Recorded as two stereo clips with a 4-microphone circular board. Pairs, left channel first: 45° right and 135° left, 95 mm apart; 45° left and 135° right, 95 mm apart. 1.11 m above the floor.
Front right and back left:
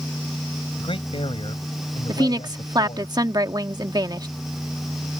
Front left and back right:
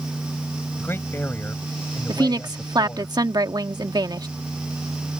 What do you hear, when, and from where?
0.8 s a man speaking: 20° right
2.1 s a woman speaking: straight behind